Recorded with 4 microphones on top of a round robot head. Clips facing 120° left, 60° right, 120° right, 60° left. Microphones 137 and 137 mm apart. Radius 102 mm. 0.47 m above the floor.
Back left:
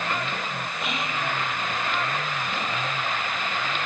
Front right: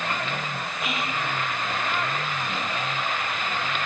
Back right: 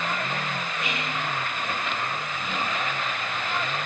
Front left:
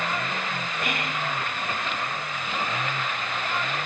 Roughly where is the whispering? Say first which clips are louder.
Front right 1 dB, front left 3 dB; ahead left.